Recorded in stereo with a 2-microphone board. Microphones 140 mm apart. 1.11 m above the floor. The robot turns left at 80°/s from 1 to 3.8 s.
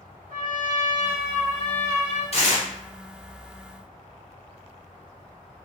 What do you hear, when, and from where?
0.3 s a trumpet: 85° right, 1.0 m; by 2.2 s straight behind, 1.0 m
2.3 s tearing paper: 45° left (ahead or behind), 0.7 m; by 2.7 s 70° left (ahead or behind), 0.7 m